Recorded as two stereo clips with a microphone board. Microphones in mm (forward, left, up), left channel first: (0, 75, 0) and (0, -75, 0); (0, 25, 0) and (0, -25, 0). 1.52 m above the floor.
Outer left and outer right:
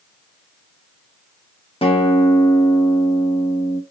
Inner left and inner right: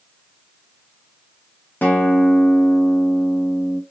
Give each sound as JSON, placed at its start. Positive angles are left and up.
{"t": 1.8, "sound": "a guitar", "side_deg": 35, "distance_m": 1.0}